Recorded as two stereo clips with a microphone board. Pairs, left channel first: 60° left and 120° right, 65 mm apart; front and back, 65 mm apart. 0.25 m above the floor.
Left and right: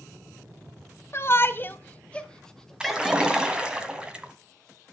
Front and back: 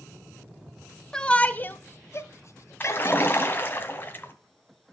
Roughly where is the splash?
Ahead right.